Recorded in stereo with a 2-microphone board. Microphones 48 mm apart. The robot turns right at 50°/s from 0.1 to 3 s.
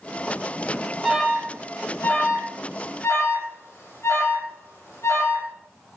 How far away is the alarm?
About 7.5 m.